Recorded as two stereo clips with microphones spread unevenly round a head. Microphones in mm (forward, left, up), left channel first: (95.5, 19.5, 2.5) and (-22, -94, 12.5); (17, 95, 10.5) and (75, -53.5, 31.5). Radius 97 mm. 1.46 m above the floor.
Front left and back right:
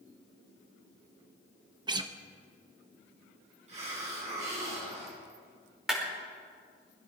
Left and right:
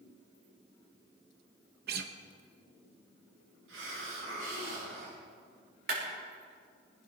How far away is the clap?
About 5 m.